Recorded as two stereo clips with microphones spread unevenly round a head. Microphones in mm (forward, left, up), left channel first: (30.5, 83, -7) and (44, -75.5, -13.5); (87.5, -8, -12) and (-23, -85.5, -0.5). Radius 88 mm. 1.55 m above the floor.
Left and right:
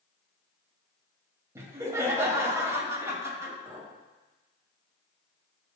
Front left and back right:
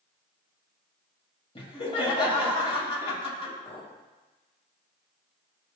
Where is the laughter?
15° right, 2.5 m.